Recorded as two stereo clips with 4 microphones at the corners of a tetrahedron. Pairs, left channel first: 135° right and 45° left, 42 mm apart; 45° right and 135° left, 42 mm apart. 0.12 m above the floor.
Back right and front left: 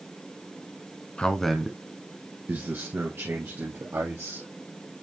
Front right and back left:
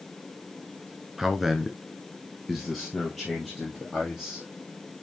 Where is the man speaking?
155° right, 1.2 m; by 4.5 s 40° left, 3.5 m.